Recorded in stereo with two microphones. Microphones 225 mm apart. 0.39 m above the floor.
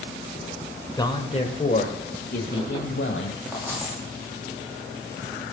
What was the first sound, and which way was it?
A man speaking, 20° left (ahead or behind).